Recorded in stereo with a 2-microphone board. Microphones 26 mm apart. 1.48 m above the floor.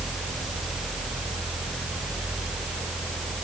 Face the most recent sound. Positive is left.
No sound to turn to.